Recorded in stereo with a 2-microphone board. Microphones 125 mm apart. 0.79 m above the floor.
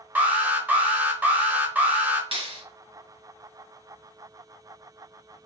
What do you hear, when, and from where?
0.1 s an alarm: 10° right (ahead or behind), 1.0 m
2.3 s a clap: 50° right (ahead or behind), 1.2 m